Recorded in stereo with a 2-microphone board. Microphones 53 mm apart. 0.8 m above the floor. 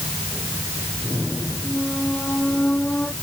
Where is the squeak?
25° left (ahead or behind).